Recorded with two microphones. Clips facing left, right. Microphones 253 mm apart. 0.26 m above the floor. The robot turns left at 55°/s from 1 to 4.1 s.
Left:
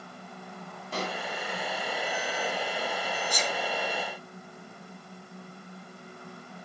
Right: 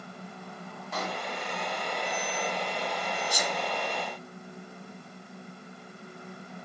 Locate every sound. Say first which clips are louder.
0.9 s a pop: left 2 dB; 35° left (ahead or behind), 1.8 m; by 1.2 s 40° left (ahead or behind), 1.8 m
3.3 s a sneeze: even; 10° right (ahead or behind), 2 m; by 3.6 s 20° right (ahead or behind), 2 m